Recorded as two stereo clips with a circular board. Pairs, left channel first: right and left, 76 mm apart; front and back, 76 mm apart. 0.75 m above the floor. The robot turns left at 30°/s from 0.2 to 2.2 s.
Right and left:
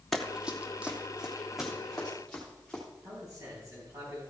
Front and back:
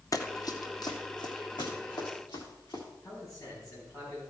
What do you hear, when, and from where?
0.1 s running footsteps: 5° right, 1.0 m; by 2.8 s 10° right, 5 m
3.0 s a man speaking: 45° left, 4.5 m